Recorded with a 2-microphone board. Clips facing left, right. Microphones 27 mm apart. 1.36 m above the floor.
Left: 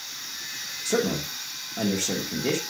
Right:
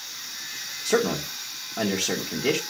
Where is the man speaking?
15° right (ahead or behind), 1.5 m.